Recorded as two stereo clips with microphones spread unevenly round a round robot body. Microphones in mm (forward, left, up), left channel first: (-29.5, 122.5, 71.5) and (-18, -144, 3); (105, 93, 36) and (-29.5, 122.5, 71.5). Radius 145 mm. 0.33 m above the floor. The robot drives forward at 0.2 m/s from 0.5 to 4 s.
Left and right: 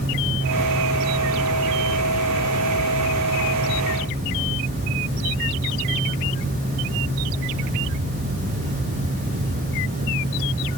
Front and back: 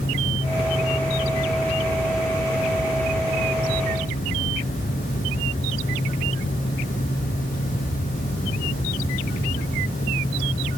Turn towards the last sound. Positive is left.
No sound to turn to.